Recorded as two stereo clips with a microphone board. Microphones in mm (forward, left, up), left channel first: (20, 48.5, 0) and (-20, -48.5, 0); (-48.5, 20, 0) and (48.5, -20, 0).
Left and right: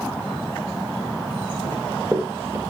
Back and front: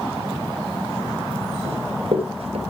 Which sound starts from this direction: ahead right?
Running footsteps, at 1.6 s.